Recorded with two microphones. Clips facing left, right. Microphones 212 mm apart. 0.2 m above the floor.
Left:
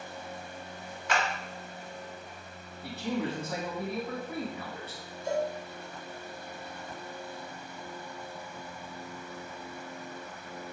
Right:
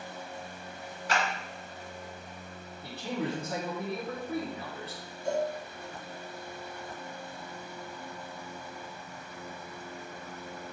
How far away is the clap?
About 1.3 m.